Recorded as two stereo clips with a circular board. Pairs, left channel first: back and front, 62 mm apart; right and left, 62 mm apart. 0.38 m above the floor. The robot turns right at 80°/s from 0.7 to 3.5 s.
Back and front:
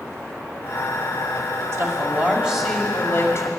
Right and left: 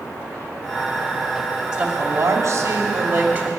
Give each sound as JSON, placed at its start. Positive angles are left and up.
{"t": 1.7, "sound": "a woman speaking", "azimuth_deg": 15, "distance_m": 2.5}